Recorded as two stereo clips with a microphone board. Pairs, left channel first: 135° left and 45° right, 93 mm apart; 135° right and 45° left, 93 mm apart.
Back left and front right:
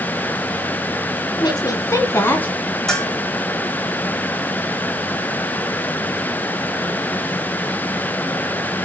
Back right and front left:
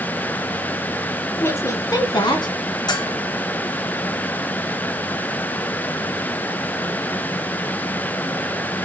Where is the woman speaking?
165° left, 1.7 m; by 2.5 s 155° right, 2.0 m.